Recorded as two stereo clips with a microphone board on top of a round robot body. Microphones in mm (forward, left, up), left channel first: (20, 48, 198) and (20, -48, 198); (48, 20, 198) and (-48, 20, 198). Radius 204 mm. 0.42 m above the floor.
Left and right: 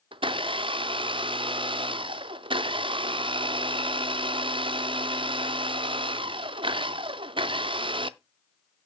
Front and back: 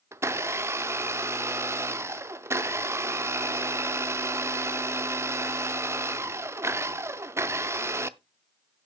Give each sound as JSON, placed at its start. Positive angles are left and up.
{"t": 0.1, "sound": "a blender", "azimuth_deg": -120, "distance_m": 0.6}